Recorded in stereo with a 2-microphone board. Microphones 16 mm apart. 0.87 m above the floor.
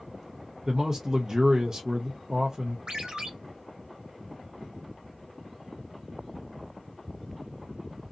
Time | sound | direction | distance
0.7 | a man speaking | 30° right (ahead or behind) | 0.5 m
2.9 | a ringtone | 70° right (ahead or behind) | 1.1 m